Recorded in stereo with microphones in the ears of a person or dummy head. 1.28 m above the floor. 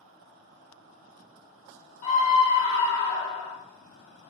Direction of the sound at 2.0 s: 35° left (ahead or behind).